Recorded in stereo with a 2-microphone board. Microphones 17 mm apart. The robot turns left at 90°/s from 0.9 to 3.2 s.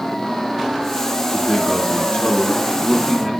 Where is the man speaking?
175° left, 4 m; by 3.3 s 5° left, 4 m.